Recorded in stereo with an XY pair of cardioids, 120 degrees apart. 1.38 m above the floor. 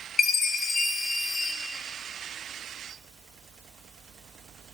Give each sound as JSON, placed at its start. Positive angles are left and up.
{"t": 0.2, "sound": "a chime", "azimuth_deg": 35, "distance_m": 0.6}